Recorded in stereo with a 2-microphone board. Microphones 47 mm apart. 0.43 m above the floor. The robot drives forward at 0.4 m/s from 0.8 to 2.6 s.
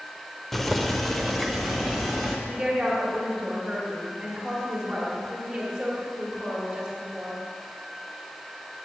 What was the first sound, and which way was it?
Boiling, 5° left (ahead or behind).